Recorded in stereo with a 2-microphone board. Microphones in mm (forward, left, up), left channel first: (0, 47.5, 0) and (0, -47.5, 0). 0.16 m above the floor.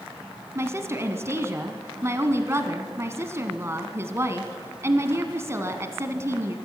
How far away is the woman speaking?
About 1.3 m.